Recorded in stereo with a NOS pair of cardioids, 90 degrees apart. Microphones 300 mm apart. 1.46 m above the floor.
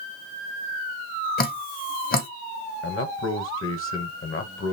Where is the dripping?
30° left, 0.9 m.